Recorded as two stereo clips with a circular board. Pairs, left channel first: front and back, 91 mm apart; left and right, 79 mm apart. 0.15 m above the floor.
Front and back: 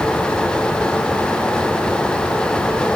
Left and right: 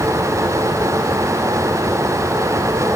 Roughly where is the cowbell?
I don't hear a cowbell.